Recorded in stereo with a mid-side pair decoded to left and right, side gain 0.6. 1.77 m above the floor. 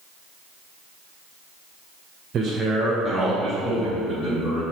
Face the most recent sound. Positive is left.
turn(degrees=50)